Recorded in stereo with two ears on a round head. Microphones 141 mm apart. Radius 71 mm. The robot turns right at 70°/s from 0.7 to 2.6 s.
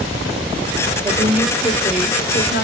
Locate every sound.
1.0 s a woman speaking: 30° right, 1.5 m; by 2.6 s 80° left, 1.5 m